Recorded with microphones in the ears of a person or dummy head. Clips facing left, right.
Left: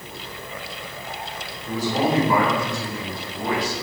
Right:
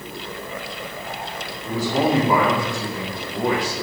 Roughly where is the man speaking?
Right.